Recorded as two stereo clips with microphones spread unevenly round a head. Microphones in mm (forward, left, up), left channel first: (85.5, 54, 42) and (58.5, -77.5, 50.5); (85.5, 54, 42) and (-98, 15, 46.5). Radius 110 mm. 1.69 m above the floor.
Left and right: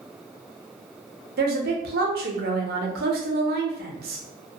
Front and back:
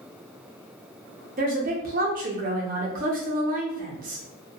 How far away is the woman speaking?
About 0.5 m.